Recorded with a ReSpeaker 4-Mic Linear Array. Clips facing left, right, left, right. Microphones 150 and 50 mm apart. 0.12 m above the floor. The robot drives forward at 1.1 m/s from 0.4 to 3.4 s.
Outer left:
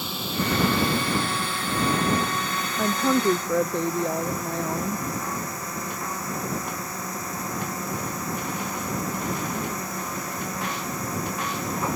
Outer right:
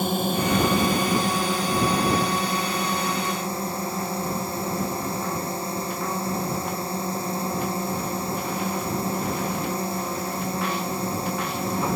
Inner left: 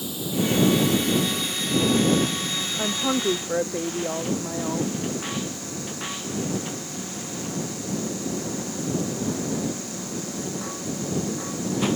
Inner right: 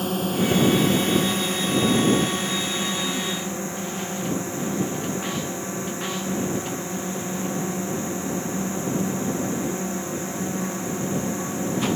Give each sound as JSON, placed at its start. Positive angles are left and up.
{"t": 0.0, "sound": "a drone", "side_deg": -50}
{"t": 2.8, "sound": "a woman speaking", "side_deg": 75}